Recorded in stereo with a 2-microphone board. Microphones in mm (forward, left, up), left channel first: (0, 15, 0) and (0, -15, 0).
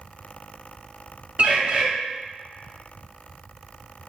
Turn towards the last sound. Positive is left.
turn(degrees=-45)  # may be behind; listen again after turning